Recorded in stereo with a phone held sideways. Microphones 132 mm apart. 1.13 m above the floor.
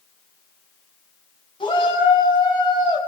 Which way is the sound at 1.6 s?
40° left (ahead or behind).